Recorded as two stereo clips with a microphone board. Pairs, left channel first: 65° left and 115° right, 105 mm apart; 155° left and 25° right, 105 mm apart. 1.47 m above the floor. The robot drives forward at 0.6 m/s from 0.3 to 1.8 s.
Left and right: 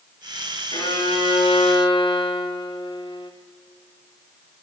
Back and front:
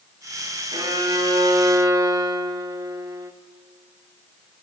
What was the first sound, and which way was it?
A violin, 25° left.